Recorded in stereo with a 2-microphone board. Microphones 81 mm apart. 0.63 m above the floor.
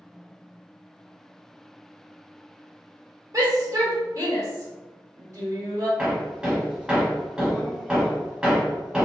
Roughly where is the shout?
Right.